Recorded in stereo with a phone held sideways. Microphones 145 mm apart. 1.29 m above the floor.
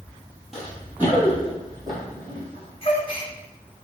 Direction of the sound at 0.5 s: Centre (ahead or behind).